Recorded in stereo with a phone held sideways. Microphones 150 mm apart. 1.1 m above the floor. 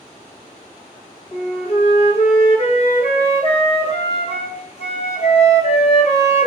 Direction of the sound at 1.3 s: 45° left (ahead or behind).